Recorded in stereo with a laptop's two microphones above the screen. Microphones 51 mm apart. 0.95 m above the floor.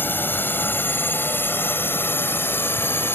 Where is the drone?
40° left (ahead or behind); by 3.1 s 45° left (ahead or behind).